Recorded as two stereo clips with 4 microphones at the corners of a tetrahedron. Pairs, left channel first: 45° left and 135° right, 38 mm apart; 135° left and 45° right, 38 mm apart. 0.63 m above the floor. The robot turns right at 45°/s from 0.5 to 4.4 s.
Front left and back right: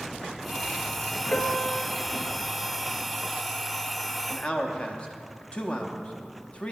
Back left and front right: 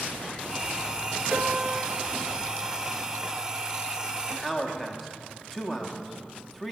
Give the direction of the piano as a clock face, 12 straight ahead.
12 o'clock.